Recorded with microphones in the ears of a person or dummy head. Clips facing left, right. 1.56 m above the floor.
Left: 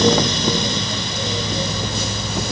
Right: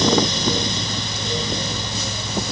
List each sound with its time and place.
Only background noise.